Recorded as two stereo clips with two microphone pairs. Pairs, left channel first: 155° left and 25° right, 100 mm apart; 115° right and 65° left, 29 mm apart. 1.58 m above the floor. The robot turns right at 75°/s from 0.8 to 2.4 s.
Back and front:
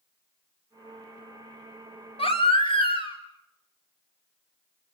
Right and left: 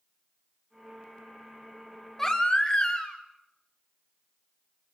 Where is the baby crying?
170° left, 3 m; by 3.2 s 175° right, 3 m.